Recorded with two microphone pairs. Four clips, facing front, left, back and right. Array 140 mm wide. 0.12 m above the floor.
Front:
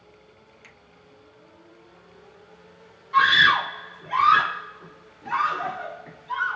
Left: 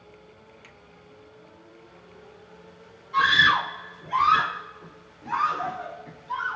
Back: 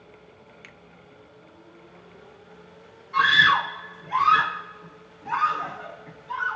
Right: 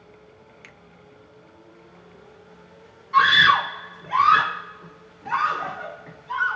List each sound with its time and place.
0.6 s a finger snap: 130° right, 0.9 m
3.1 s a scream: 35° right, 1.3 m